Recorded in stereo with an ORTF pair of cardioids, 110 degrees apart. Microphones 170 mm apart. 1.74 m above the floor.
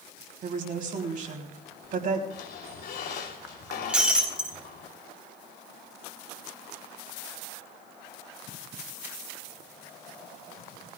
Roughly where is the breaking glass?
Ahead.